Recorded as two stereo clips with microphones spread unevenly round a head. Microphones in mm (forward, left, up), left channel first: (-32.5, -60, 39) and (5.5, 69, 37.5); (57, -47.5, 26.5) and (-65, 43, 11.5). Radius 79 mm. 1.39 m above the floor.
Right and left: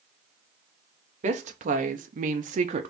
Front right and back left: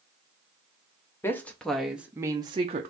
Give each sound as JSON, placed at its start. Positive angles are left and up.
{"t": 1.2, "sound": "a woman speaking", "azimuth_deg": 40, "distance_m": 1.0}